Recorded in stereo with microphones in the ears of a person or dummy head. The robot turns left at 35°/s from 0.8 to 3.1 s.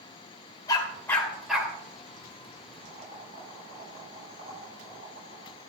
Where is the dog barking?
20° left (ahead or behind), 3 m; by 1.7 s 10° right (ahead or behind), 3 m.